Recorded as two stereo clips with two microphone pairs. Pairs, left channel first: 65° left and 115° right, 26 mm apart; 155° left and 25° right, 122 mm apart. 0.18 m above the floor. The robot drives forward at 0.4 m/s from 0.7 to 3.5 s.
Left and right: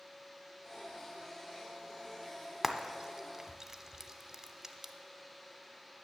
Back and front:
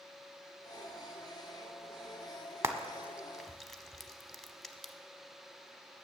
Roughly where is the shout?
I don't hear a shout.